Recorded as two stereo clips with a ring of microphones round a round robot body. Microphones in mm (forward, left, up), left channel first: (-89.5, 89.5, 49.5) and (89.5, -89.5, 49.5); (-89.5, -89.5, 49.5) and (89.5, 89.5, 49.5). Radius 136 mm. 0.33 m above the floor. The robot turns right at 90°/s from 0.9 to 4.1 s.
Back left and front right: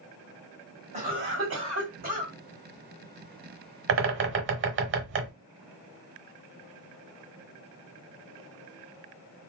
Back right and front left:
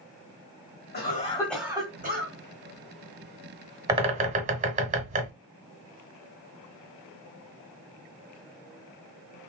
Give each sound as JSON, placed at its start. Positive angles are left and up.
{"t": 0.9, "sound": "a cough", "azimuth_deg": -100, "distance_m": 2.0}
{"t": 3.9, "sound": "a bird", "azimuth_deg": -30, "distance_m": 1.0}